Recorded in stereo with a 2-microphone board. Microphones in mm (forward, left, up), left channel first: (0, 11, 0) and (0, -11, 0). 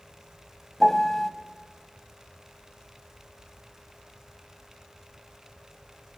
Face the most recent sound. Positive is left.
turn(degrees=10)  # may be behind; listen again after turning